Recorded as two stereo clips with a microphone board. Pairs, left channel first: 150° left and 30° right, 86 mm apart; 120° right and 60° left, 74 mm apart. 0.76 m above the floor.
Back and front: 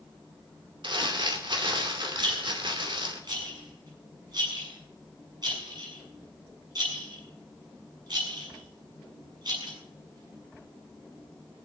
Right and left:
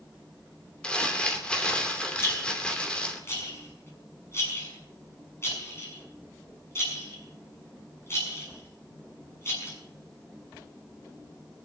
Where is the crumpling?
45° right, 2.5 m.